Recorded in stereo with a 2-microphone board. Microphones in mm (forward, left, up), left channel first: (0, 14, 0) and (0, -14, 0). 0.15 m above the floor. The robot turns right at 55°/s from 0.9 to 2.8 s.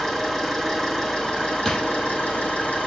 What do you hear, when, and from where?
0.0 s an engine running: 10° left, 6 m; by 2.9 s 115° left, 6 m
1.6 s a drawer: 20° left (ahead or behind), 2 m; by 1.8 s 10° left (ahead or behind), 2 m